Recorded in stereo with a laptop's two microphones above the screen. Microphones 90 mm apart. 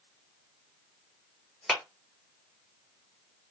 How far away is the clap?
About 0.6 m.